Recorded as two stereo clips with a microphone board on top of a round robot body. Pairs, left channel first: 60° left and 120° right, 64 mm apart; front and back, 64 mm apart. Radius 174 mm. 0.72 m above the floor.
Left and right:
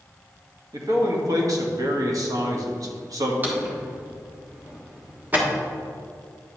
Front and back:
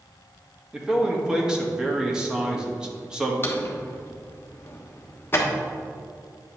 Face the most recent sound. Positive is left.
turn(degrees=-55)